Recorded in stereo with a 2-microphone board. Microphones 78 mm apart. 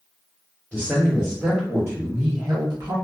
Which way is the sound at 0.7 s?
5° left (ahead or behind).